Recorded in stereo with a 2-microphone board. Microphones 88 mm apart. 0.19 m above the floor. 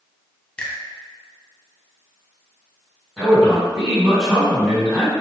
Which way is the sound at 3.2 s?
5° right (ahead or behind).